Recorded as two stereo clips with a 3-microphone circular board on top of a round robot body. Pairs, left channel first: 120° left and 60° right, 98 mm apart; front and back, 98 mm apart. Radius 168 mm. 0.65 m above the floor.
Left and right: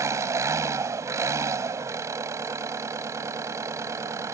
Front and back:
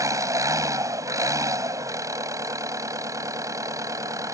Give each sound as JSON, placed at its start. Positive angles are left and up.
{"t": 0.0, "sound": "an engine running", "azimuth_deg": -120}